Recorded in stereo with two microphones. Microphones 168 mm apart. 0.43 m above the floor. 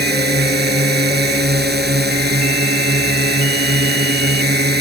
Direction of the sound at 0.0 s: 80° right.